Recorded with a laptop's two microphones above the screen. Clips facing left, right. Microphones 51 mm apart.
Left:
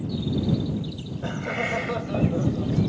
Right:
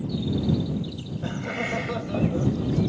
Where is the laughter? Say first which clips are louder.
Left 2 dB; 15° left (ahead or behind); by 2.8 s 10° left (ahead or behind).